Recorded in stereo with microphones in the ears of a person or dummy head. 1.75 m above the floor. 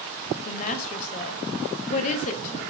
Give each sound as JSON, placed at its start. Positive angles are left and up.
{"t": 0.5, "sound": "a woman speaking", "side_deg": 35, "distance_m": 0.5}